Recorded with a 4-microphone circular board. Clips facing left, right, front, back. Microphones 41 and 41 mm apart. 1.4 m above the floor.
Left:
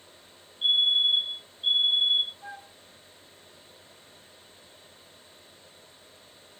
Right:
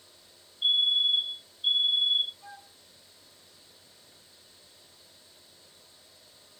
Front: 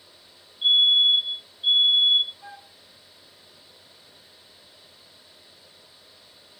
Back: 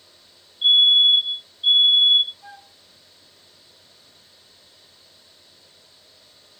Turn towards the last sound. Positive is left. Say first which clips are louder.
# left 5 dB, even
turn(degrees=55)